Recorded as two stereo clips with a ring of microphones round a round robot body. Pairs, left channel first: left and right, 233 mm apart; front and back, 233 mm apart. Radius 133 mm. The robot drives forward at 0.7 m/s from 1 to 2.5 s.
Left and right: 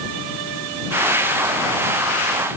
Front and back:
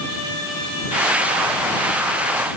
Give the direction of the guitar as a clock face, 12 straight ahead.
I don't hear a guitar.